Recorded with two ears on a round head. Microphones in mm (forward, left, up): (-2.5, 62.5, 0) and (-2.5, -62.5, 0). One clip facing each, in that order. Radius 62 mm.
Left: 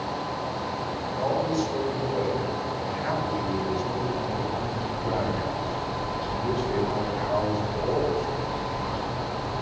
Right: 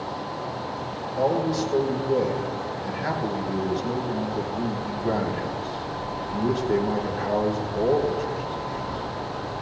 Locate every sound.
1.2 s a man speaking: 75° right (ahead or behind), 3.5 m